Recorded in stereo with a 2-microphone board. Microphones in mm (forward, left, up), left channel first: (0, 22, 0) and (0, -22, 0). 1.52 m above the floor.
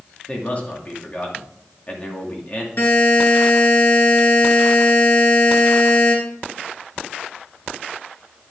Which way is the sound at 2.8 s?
65° left (ahead or behind).